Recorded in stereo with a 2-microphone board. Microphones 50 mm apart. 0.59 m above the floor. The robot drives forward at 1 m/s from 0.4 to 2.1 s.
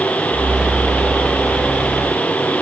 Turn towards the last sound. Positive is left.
No sound to turn to.